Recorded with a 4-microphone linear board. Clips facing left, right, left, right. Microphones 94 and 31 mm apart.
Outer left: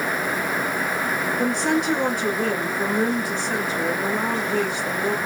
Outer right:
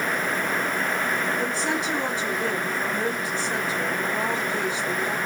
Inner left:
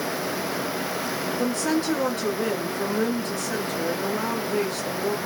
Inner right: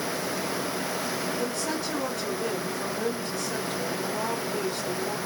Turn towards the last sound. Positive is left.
turn(degrees=50)  # may be behind; listen again after turning